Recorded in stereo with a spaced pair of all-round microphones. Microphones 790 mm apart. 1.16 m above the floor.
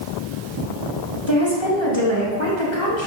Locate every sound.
1.3 s a woman speaking: 35° left (ahead or behind), 1.7 m